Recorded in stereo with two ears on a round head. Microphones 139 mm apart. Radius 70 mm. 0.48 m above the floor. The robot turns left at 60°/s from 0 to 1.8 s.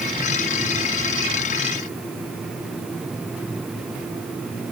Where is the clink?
No clink in this recording.